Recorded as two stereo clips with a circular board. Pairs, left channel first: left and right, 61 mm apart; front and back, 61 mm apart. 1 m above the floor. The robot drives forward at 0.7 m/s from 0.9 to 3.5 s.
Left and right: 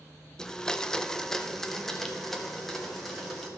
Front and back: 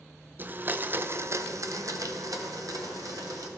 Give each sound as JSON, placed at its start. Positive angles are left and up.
{"t": 0.4, "sound": "a blender", "azimuth_deg": 165, "distance_m": 0.6}